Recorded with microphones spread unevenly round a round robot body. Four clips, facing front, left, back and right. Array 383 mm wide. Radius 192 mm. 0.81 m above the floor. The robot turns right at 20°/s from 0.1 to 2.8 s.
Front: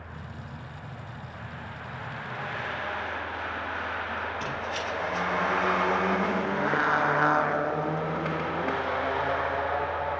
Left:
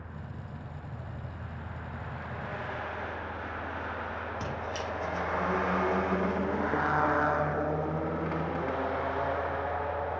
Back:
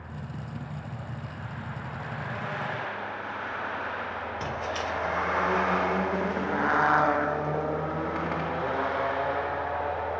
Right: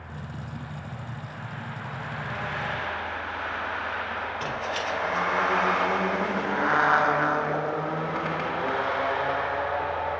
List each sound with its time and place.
4.4 s a squeak: 120° left, 0.8 m